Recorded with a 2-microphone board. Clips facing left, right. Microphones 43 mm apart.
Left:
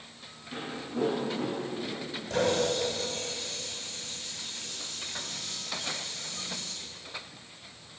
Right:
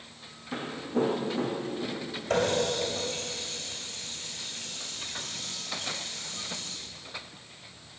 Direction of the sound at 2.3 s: 80° right.